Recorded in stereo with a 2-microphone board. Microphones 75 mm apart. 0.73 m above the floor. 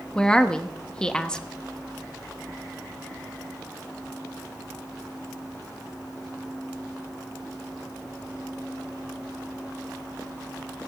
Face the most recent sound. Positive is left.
turn(degrees=10)  # may be behind; listen again after turning